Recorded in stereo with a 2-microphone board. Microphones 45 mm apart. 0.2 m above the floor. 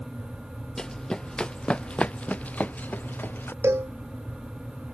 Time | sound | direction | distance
0.8 | running footsteps | 15° left (ahead or behind) | ?
3.6 | a cowbell | 80° right | ?